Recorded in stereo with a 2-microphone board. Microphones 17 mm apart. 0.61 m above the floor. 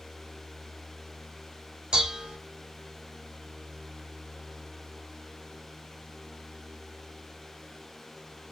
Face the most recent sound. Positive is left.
turn(degrees=-50)  # may be behind; listen again after turning